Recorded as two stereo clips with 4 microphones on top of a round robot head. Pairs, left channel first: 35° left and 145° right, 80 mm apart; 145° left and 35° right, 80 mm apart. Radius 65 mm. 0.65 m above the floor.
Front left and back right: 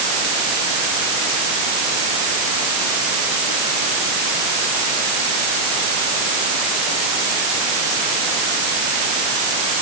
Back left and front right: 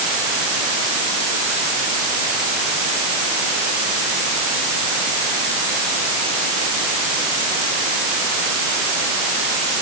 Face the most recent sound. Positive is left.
No sound to turn to.